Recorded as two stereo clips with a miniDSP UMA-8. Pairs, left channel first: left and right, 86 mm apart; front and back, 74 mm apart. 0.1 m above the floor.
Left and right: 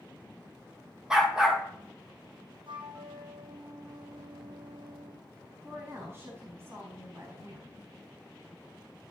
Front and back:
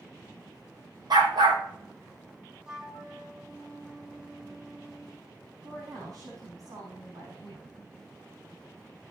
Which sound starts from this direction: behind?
A dog barking, at 1.1 s.